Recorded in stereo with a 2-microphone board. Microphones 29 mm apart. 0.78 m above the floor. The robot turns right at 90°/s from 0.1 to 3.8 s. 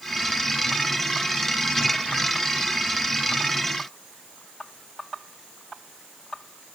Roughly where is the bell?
No bell in this recording.